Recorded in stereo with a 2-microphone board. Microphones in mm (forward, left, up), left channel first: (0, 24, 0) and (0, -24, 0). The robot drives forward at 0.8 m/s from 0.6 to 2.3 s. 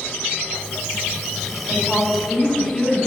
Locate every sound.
1.7 s a woman speaking: 10° right (ahead or behind), 2 m; by 3.1 s 5° right (ahead or behind), 2.5 m